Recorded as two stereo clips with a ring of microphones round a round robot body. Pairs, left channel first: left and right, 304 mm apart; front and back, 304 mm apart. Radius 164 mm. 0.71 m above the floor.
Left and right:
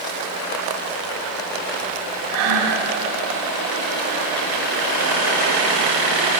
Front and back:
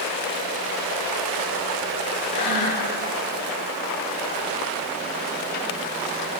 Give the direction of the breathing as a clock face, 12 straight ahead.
2 o'clock.